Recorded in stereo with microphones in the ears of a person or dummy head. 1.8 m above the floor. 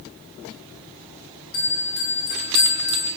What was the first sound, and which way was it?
A bell, 70° left (ahead or behind).